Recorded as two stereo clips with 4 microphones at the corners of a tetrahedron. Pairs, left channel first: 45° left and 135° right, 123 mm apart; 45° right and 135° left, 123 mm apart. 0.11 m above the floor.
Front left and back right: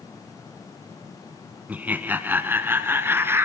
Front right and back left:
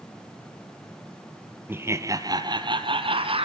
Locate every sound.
1.7 s laughter: 165° left, 1.1 m; by 3.4 s 155° left, 1.8 m